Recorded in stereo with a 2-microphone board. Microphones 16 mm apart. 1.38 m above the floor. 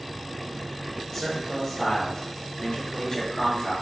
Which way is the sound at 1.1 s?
20° left (ahead or behind).